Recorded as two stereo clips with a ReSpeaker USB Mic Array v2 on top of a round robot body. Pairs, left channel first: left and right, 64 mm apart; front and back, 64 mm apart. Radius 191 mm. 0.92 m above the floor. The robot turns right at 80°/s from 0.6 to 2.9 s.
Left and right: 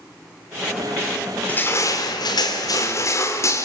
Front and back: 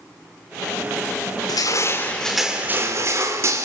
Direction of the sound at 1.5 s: 20° left.